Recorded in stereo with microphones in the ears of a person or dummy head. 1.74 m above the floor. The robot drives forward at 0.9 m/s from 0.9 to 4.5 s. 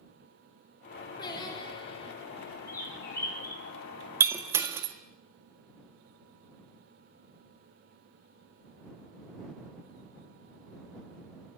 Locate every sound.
1.2 s singing: 25° left (ahead or behind), 4 m; by 2.1 s 35° left (ahead or behind), 3.5 m
2.7 s a bird: 20° left (ahead or behind), 6.5 m
4.2 s breaking glass: 10° right (ahead or behind), 1.8 m; by 4.9 s 15° right (ahead or behind), 1.6 m